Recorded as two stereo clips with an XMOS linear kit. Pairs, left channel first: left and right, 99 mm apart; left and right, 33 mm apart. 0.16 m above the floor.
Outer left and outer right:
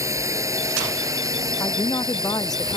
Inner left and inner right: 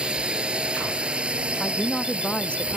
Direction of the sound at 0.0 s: 30° right (ahead or behind).